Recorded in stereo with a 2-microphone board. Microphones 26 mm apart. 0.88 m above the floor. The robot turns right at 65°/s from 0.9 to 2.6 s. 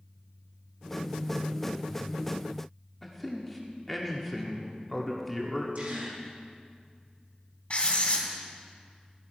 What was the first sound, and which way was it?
A man speaking, 5° left (ahead or behind).